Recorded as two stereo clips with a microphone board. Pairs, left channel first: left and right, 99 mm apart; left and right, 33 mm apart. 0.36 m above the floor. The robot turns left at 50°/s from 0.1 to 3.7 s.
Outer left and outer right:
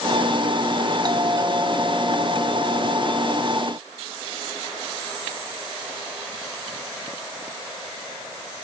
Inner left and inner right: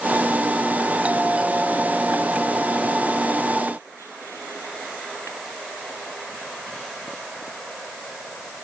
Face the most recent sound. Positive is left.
turn(degrees=105)